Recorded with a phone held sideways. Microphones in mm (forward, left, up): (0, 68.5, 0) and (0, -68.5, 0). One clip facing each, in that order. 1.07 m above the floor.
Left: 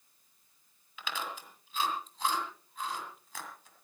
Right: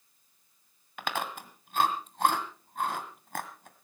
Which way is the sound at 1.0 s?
55° right (ahead or behind).